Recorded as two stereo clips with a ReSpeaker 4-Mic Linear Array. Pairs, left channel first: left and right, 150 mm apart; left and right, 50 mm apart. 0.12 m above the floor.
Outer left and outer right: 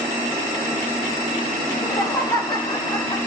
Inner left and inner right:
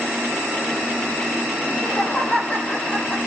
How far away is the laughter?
About 4 m.